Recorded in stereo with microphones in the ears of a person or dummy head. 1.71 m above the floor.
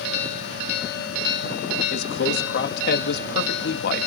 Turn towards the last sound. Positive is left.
turn(degrees=65)  # may be behind; listen again after turning